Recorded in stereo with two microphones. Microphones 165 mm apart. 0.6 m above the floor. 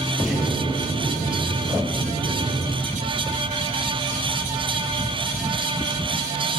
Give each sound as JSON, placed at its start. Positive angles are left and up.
{"t": 0.2, "sound": "an explosion", "side_deg": 50, "distance_m": 7.0}